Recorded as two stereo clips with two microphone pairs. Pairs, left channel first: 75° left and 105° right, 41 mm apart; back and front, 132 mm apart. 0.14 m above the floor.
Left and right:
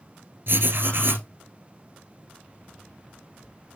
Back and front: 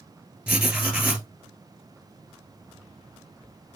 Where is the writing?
75° right, 2 m.